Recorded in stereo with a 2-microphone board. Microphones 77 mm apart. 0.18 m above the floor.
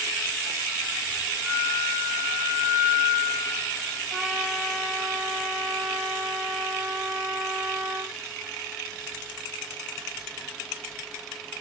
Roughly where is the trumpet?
Centre.